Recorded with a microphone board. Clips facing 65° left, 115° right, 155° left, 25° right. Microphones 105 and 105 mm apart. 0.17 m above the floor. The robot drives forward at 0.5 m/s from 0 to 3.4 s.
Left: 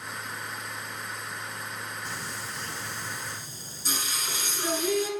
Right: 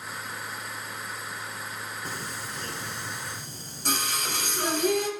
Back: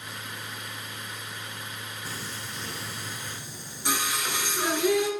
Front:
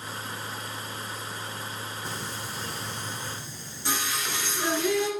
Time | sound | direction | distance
2.0 | singing | 85° right | 0.8 m